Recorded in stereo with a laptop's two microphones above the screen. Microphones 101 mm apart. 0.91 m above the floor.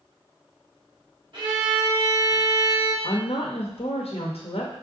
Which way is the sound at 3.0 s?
75° left (ahead or behind).